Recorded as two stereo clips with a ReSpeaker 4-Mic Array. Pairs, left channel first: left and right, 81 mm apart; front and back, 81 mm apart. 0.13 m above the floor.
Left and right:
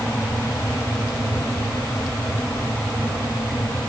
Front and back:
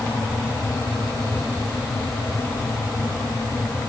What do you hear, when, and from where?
Only background noise.